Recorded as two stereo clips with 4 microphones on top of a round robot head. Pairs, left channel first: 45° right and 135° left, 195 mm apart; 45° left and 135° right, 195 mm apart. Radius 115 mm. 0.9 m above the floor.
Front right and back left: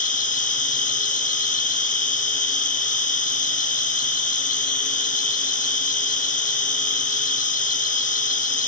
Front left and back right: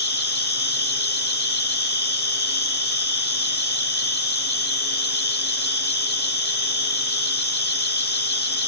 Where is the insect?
5° left, 3 m.